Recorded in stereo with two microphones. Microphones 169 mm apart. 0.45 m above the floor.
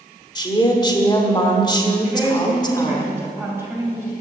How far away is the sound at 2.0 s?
About 2.5 m.